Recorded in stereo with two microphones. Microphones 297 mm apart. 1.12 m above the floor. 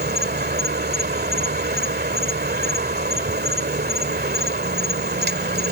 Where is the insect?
35° right (ahead or behind).